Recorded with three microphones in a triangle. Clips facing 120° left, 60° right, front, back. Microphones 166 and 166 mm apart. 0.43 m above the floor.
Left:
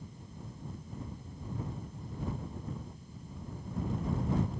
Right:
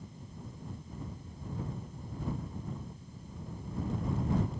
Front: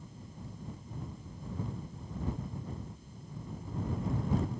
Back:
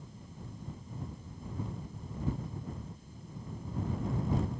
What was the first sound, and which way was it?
Only background noise.